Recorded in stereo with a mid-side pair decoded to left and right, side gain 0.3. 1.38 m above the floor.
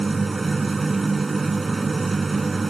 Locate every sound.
0.0 s a machine running: 40° right